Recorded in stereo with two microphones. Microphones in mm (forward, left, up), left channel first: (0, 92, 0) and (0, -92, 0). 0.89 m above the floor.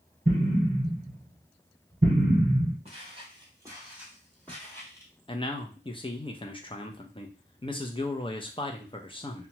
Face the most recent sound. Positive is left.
turn(degrees=30)  # may be behind; listen again after turning